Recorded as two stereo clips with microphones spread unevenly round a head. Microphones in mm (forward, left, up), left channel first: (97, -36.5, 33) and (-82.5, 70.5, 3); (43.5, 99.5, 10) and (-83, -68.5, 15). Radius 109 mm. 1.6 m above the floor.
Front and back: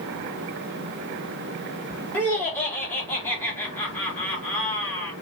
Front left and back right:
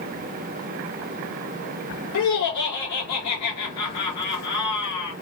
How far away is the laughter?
About 2.5 m.